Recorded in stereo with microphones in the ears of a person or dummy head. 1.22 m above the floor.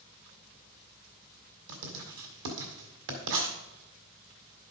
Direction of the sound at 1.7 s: 60° right (ahead or behind).